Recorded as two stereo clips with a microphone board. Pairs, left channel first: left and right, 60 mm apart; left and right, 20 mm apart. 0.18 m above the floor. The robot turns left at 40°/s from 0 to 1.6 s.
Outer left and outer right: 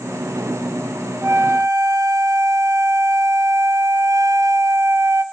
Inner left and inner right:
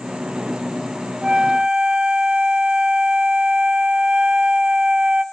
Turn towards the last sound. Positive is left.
turn(degrees=-80)